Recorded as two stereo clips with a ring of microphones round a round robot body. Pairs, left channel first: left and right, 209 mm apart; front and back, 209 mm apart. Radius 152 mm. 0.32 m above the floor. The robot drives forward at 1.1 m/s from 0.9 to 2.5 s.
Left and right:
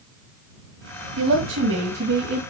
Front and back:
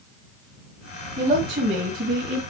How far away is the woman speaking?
About 1.9 m.